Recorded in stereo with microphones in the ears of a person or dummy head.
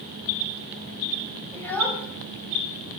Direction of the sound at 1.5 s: 10° left (ahead or behind).